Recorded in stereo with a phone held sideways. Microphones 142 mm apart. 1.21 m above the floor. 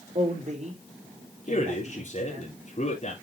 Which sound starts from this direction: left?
A man speaking, at 1.5 s.